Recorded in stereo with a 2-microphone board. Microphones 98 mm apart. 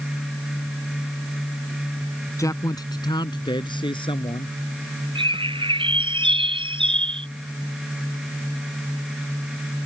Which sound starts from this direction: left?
A man speaking, at 2.4 s.